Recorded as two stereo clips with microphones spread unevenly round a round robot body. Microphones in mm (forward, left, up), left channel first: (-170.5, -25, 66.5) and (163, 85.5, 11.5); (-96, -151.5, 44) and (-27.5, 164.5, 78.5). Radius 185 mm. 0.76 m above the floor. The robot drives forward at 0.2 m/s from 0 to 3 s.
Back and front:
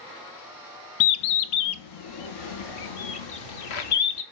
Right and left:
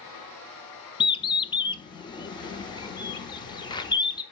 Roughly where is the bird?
Behind.